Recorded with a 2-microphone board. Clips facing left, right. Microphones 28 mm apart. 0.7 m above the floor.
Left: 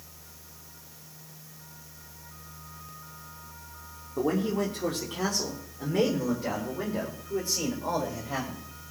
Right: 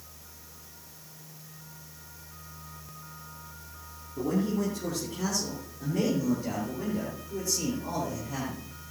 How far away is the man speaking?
About 2 m.